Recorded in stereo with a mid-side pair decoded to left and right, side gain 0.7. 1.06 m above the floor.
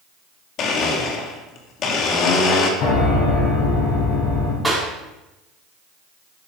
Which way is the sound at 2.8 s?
60° left.